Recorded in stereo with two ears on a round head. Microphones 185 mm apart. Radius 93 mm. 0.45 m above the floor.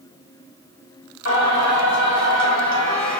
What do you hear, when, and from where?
1.2 s singing: 60° left (ahead or behind), 2.0 m